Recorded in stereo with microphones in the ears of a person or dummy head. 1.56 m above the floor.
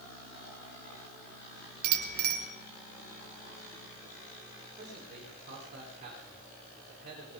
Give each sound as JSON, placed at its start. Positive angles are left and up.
{"t": 1.8, "sound": "a bicycle bell", "side_deg": -80, "distance_m": 3.5}
{"t": 4.8, "sound": "a man speaking", "side_deg": -40, "distance_m": 9.5}